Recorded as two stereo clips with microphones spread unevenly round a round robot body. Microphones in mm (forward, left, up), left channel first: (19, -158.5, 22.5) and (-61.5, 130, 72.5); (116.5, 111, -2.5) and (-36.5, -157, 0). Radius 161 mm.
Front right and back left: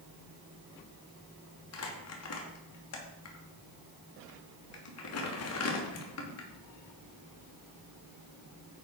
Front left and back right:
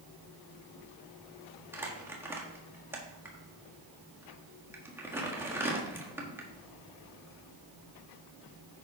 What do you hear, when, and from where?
1.7 s crumpling: 35° right, 1.6 m